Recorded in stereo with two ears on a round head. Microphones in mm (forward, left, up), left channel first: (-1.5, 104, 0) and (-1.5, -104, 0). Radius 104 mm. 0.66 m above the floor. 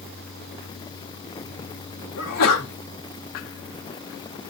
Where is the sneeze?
70° left (ahead or behind), 4.5 m.